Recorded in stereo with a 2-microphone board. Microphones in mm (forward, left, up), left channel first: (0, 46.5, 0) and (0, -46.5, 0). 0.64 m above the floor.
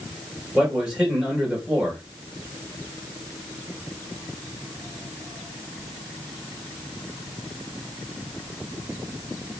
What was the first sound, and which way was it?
A man speaking, 5° right (ahead or behind).